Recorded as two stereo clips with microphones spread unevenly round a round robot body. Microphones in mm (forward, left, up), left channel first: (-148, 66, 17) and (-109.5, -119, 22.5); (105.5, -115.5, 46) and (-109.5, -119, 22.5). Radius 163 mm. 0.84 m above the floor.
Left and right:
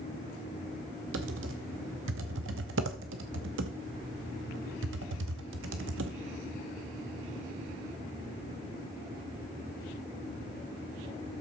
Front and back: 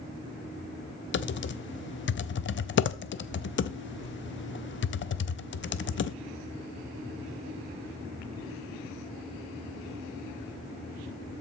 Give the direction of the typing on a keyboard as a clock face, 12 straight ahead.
1 o'clock.